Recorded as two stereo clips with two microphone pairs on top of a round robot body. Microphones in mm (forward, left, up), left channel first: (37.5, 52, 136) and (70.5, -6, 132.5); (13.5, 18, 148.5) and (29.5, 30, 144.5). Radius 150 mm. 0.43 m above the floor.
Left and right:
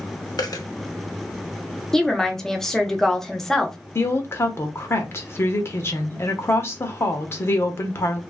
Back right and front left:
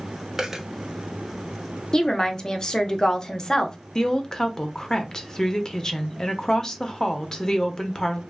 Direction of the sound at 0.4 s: 90° left.